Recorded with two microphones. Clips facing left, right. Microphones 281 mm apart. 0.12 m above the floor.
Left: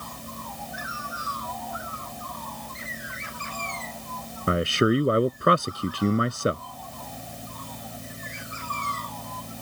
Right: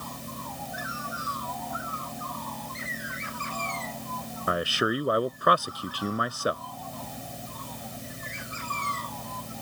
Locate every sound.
4.5 s a man speaking: 30° left (ahead or behind)